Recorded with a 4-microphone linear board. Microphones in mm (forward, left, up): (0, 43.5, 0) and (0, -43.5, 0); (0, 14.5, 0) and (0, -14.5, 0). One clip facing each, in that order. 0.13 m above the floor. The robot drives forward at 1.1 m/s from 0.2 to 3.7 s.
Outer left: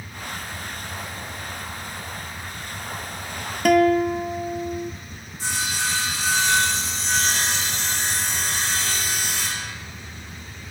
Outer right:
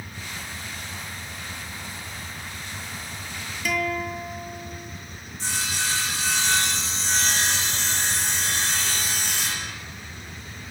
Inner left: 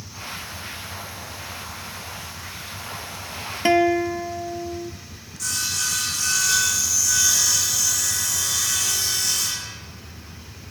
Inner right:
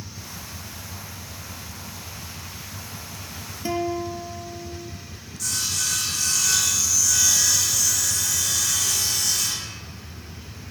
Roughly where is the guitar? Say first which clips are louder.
Outer left 11 dB, inner left 8 dB; left.